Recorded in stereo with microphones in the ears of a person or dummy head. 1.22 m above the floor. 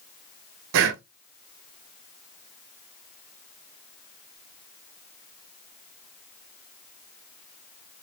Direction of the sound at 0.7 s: 65° right (ahead or behind).